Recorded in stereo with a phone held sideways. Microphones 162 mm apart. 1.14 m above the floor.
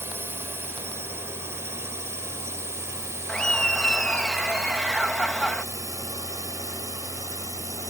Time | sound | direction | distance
0.0 | a drone | 15° right (ahead or behind) | ?
3.3 | laughter | 5° left (ahead or behind) | ?